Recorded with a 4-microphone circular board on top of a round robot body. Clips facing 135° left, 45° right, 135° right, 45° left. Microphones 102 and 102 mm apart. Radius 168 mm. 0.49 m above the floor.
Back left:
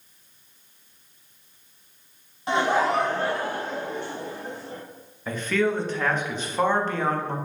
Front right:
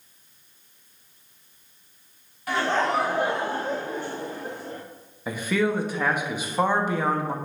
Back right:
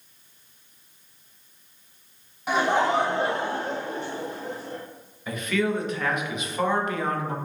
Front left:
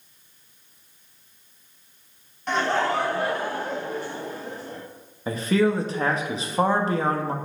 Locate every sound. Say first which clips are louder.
2.5 s laughter: back left 2 dB, back right 1 dB; 155° left, 0.8 m; by 4.8 s 70° right, 1.4 m
5.3 s a man speaking: even, front left 4 dB; 30° left, 0.9 m